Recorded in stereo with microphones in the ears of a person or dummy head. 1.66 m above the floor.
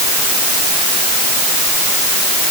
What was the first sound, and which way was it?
Only background noise.